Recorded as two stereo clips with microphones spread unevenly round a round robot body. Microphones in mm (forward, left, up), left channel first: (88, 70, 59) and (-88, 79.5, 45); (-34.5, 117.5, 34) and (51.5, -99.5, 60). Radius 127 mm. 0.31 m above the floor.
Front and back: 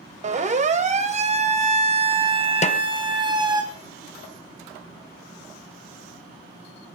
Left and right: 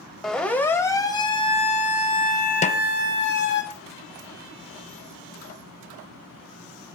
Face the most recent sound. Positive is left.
turn(degrees=50)